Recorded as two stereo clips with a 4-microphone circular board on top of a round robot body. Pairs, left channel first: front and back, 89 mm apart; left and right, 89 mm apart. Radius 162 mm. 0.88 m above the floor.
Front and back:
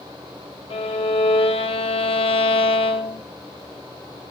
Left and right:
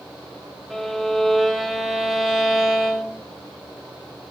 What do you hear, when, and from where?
0.7 s a violin: 5° right, 0.9 m